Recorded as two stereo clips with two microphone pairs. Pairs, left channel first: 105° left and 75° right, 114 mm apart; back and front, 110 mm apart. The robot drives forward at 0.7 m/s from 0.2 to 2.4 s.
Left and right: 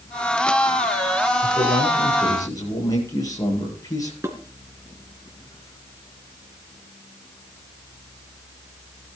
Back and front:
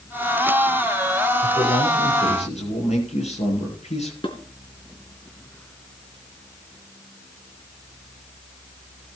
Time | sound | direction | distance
1.4 | a man speaking | 165° left | 8 m
4.2 | dishes clattering | 140° right | 3 m